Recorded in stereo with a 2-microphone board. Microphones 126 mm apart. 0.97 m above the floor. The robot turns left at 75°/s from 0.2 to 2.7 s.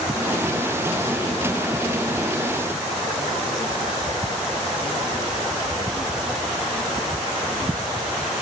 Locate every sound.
Only background noise.